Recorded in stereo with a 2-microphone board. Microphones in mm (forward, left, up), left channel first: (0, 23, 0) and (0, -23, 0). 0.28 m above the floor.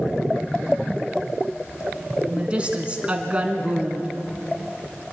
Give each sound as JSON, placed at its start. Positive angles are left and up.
{"t": 2.3, "sound": "a woman speaking", "side_deg": -25, "distance_m": 2.5}